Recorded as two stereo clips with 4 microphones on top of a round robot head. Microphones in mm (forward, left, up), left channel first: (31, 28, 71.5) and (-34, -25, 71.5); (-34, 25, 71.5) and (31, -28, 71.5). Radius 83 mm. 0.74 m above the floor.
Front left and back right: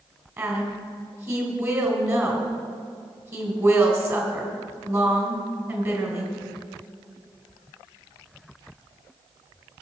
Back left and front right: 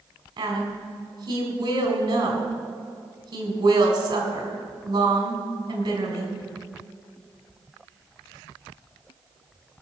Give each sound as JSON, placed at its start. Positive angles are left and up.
{"t": 0.4, "sound": "a woman speaking", "azimuth_deg": -85, "distance_m": 3.5}